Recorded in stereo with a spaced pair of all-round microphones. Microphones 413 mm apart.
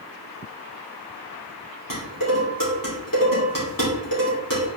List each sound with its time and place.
1.9 s dishes clattering: 50° left (ahead or behind), 2.5 m